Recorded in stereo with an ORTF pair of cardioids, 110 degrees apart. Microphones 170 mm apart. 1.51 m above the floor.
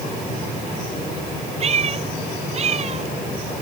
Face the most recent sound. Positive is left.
turn(degrees=-40)